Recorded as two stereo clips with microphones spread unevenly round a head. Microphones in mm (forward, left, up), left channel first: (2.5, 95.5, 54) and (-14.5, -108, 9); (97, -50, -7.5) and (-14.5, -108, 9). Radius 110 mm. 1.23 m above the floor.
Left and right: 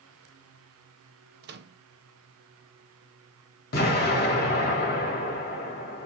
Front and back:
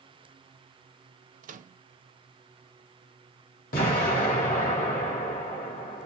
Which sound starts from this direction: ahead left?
An explosion, at 3.7 s.